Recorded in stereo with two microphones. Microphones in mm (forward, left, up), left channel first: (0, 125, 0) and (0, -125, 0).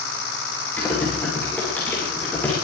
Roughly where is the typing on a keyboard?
Centre.